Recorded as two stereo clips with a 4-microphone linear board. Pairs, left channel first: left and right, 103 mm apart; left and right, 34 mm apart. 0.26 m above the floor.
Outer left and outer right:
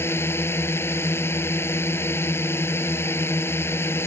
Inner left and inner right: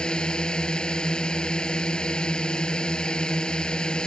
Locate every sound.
0.0 s a drone: 25° left (ahead or behind)